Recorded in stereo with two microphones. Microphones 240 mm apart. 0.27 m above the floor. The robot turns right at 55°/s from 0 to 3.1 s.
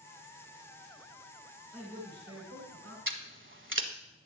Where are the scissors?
55° right (ahead or behind), 0.9 m; by 3.9 s 50° right (ahead or behind), 0.9 m.